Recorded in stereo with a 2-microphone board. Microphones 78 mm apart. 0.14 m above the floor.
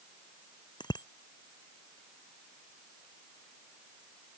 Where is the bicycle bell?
80° left.